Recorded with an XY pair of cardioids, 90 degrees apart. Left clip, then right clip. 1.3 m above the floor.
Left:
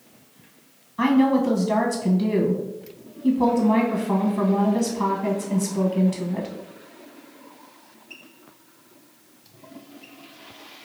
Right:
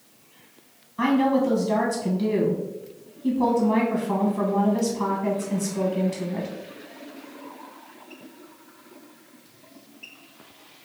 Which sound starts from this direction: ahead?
A woman speaking, at 1.0 s.